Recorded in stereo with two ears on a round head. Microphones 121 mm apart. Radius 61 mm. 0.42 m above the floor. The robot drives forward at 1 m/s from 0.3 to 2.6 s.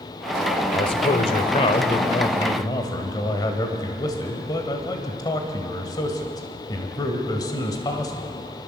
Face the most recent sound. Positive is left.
turn(degrees=30)  # may be behind; listen again after turning